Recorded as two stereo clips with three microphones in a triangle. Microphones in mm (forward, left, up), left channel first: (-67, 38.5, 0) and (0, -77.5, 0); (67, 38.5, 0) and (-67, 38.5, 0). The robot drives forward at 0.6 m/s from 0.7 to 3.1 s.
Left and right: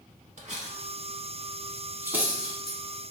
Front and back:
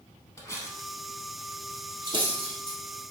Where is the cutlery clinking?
60° right, 0.8 m; by 2.8 s 150° right, 1.2 m.